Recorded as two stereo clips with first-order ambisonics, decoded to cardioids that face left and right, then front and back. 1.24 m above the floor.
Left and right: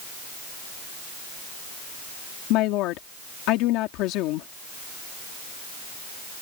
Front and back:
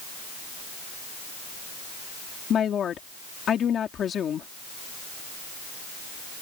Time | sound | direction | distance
2.5 | a woman speaking | 60° left | ?